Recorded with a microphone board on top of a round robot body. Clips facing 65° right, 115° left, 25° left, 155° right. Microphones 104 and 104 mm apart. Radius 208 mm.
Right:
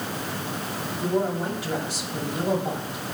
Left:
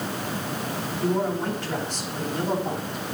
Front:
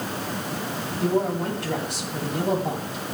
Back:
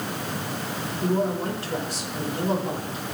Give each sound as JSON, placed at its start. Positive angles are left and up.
{"t": 1.0, "sound": "a man speaking", "azimuth_deg": 10, "distance_m": 8.0}